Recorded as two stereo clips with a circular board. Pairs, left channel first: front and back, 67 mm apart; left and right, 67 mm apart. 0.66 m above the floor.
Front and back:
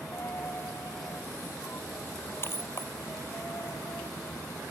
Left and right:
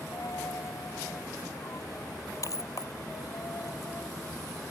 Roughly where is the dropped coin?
Ahead left.